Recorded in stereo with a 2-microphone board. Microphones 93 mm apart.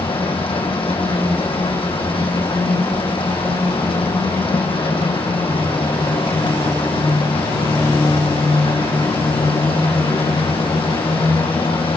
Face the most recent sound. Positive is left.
turn(degrees=80)